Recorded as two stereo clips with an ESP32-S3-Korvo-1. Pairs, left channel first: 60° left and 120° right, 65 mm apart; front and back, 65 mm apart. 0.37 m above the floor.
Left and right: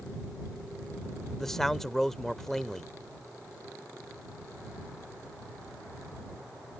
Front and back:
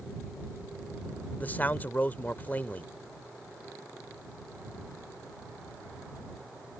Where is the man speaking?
15° right.